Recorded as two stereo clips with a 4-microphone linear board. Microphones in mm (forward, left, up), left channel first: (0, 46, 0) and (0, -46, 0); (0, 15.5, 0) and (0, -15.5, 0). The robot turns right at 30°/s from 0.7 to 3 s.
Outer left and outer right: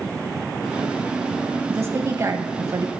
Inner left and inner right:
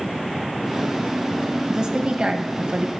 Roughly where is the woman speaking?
Behind right.